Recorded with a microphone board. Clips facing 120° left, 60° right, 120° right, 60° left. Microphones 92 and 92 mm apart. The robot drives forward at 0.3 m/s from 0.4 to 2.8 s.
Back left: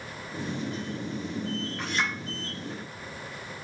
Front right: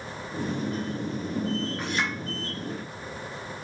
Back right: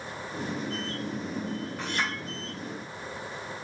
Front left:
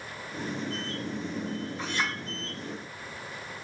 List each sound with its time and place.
1.8 s a clink: 140° right, 2.5 m